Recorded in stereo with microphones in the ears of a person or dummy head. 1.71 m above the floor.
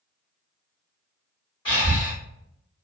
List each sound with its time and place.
1.6 s breathing: 20° left (ahead or behind), 1.4 m